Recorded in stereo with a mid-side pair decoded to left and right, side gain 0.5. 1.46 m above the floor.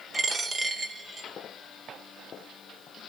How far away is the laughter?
No laughter in this recording.